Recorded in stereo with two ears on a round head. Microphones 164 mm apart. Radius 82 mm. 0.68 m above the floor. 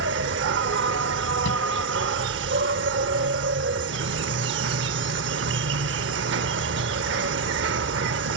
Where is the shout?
75° left (ahead or behind).